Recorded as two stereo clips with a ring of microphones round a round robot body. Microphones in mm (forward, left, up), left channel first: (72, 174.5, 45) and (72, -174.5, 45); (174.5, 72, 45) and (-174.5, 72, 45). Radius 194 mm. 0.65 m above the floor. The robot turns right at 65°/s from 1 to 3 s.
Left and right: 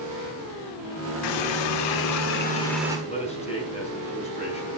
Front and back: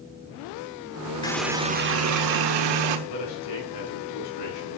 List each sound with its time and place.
1.2 s a running tap: 80° left, 1.3 m; by 3.0 s 170° right, 1.3 m
3.1 s a man speaking: 15° left, 6 m